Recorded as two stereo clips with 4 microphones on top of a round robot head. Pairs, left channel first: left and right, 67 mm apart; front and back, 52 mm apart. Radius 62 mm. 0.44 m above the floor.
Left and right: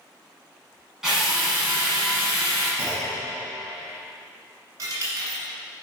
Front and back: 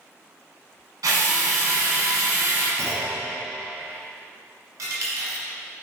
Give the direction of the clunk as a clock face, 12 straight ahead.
5 o'clock.